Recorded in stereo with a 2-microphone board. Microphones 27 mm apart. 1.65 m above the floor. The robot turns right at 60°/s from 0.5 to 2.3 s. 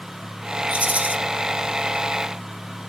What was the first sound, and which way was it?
A rattle, 45° right (ahead or behind).